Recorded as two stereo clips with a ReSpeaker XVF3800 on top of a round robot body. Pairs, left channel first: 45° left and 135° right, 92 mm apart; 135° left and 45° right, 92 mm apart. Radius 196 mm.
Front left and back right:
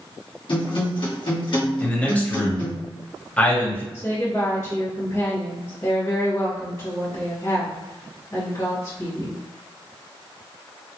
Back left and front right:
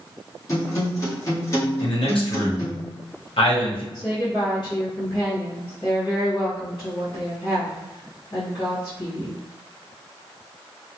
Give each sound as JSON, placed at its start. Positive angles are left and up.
{"t": 0.5, "sound": "a guitar", "azimuth_deg": 75, "distance_m": 1.5}
{"t": 1.8, "sound": "a man speaking", "azimuth_deg": 120, "distance_m": 1.3}
{"t": 3.9, "sound": "a woman speaking", "azimuth_deg": 95, "distance_m": 1.8}